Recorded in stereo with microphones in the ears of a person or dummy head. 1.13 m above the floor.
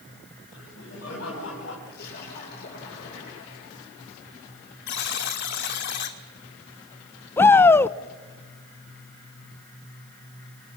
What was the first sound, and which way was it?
Laughter, 70° left (ahead or behind).